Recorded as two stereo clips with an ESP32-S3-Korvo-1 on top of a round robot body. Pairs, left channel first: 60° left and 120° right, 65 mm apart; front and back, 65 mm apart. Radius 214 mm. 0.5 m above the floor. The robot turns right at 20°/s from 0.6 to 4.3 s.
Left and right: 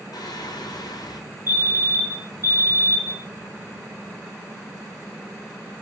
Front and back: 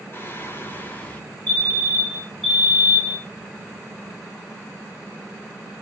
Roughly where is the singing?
Ahead left.